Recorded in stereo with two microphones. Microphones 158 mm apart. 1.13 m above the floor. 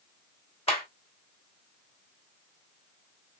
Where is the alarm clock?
I don't hear an alarm clock.